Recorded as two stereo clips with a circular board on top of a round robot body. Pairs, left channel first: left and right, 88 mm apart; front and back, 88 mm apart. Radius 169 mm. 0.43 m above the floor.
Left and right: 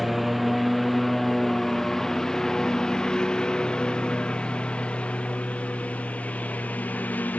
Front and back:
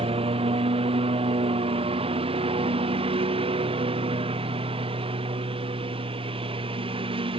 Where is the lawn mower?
Straight behind; by 7.4 s 160° left.